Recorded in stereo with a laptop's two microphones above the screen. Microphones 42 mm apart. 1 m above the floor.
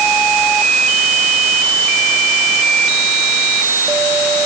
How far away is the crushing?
I don't hear crushing.